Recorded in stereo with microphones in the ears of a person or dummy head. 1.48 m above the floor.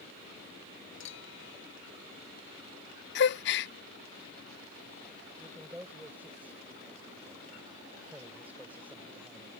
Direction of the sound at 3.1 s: 60° left (ahead or behind).